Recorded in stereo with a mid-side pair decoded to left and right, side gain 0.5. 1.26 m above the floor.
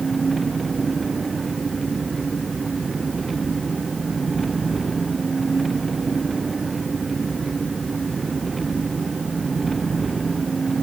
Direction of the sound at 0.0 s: 25° right.